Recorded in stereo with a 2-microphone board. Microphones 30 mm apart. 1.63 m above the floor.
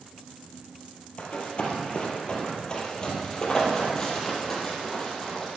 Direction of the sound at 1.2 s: 40° left (ahead or behind).